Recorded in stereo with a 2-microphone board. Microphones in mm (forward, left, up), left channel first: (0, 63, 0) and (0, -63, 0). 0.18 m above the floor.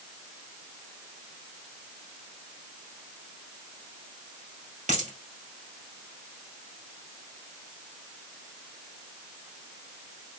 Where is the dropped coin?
75° right (ahead or behind), 2.0 m.